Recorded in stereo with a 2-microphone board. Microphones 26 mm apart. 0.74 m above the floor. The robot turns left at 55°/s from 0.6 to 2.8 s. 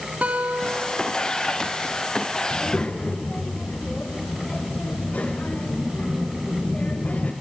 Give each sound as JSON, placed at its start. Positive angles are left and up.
{"t": 0.2, "sound": "a guitar", "azimuth_deg": -65, "distance_m": 3.5}
{"t": 2.5, "sound": "a child speaking", "side_deg": 50, "distance_m": 2.0}